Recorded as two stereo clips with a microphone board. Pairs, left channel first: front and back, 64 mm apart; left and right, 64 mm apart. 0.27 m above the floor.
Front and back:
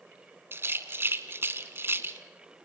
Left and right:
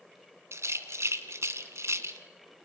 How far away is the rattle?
About 1.9 m.